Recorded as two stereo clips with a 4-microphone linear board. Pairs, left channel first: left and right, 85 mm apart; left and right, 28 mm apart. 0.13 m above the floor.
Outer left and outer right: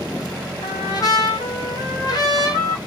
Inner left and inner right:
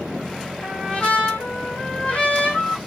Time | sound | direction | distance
0.6 | a trumpet | 50° left (ahead or behind) | 1.3 m